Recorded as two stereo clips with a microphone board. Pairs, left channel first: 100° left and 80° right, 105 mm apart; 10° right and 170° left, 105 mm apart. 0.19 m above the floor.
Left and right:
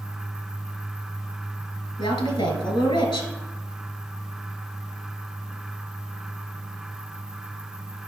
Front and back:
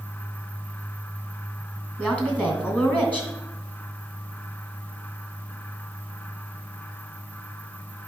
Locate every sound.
2.0 s a woman speaking: 65° left, 2 m